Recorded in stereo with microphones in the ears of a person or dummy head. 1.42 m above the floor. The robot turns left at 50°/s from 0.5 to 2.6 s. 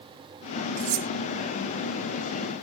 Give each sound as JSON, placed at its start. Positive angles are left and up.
{"t": 0.8, "sound": "cutlery clinking", "side_deg": -85}